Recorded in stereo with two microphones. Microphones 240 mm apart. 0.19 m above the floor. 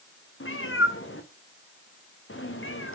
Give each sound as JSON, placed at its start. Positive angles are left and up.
{"t": 0.4, "sound": "a cat meowing", "side_deg": 60, "distance_m": 1.8}